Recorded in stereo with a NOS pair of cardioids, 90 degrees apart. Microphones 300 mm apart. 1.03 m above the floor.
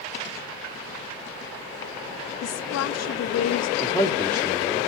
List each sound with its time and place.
2.4 s a woman speaking: 55° left, 0.8 m
3.8 s a man speaking: 10° left, 2 m